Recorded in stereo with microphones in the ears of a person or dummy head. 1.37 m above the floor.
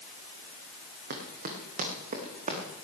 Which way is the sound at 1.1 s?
50° right (ahead or behind).